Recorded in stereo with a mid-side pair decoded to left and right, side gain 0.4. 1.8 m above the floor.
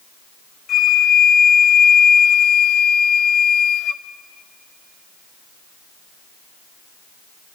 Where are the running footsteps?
No running footsteps in this recording.